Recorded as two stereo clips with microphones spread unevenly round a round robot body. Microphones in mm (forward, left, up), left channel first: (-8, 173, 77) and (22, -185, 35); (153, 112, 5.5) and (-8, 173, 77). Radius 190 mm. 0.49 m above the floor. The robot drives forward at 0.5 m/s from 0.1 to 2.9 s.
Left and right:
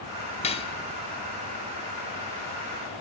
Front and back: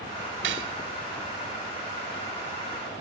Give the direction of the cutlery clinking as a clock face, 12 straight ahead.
6 o'clock.